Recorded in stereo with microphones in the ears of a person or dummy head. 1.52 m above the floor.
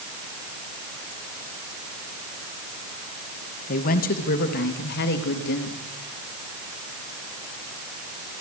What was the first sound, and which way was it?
A woman speaking, 45° left (ahead or behind).